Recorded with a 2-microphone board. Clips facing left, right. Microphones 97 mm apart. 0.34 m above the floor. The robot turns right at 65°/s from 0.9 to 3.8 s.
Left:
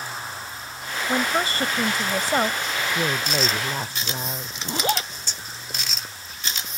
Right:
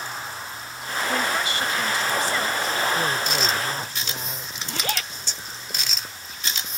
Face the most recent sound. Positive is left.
turn(degrees=25)  # may be behind; listen again after turning